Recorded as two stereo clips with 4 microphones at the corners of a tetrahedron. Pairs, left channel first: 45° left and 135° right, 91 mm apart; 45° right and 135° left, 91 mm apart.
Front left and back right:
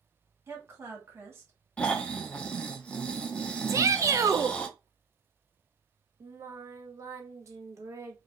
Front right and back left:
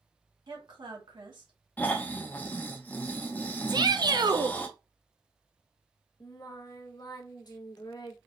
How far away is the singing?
About 0.7 m.